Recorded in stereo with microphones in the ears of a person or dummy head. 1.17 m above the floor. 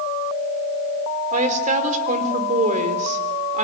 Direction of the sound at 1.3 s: 50° right (ahead or behind).